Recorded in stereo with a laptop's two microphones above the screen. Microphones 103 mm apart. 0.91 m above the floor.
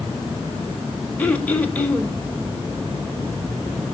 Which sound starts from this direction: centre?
Throat clearing, at 1.2 s.